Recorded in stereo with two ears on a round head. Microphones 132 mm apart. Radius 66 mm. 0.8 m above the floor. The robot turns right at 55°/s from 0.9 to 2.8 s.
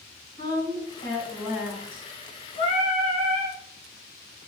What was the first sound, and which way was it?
A woman speaking, 140° left.